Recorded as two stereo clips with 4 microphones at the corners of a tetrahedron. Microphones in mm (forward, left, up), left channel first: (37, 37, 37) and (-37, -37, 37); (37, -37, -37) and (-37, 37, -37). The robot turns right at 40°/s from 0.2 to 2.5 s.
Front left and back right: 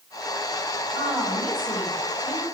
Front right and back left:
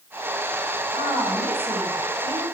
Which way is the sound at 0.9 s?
110° left.